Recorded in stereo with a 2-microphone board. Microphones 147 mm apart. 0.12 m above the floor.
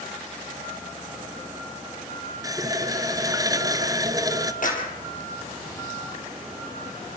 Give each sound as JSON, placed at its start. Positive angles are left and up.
{"t": 2.4, "sound": "a running tap", "side_deg": -25, "distance_m": 1.3}
{"t": 4.6, "sound": "a clap", "side_deg": 65, "distance_m": 5.0}